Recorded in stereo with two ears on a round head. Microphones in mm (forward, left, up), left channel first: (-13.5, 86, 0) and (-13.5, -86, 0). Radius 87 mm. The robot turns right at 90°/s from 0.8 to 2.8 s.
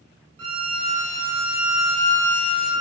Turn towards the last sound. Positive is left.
turn(degrees=125)